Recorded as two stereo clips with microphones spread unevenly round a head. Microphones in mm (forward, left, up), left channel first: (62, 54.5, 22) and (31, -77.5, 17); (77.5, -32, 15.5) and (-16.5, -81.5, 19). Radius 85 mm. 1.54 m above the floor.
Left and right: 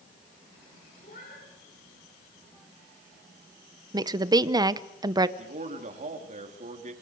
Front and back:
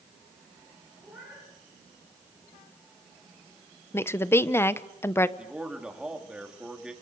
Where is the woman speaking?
40° right, 1.1 m.